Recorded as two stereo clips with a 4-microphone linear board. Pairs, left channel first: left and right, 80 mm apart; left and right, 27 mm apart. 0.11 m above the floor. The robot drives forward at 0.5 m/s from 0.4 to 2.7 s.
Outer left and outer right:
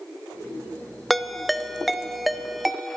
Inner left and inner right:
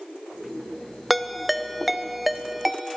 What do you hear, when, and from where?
1.1 s a ringtone: centre (ahead or behind), 0.7 m